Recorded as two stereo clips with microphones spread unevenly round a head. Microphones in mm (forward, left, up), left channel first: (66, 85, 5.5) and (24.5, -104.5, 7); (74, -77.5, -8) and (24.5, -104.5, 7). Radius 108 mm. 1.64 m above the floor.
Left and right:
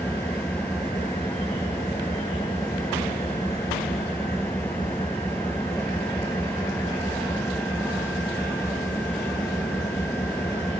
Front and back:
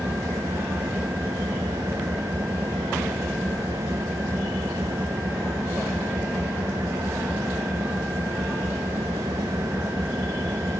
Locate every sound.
0.0 s an engine running: 160° left